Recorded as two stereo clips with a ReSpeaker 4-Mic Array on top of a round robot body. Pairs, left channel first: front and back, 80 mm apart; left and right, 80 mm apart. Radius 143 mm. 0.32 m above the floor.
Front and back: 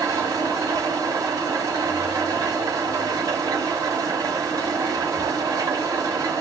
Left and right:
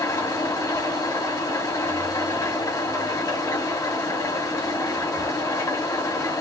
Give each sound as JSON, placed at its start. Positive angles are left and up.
{"t": 0.0, "sound": "an engine running", "azimuth_deg": 140, "distance_m": 1.8}